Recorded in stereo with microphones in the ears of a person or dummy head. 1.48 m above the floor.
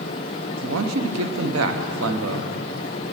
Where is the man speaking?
75° right (ahead or behind), 0.9 m.